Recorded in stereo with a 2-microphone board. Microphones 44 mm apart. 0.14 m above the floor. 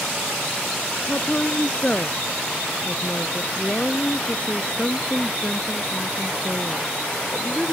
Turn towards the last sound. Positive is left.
turn(degrees=30)  # may be behind; listen again after turning